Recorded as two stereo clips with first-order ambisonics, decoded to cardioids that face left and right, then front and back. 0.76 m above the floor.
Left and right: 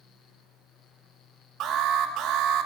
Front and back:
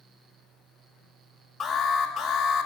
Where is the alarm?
70° right, 1.8 m.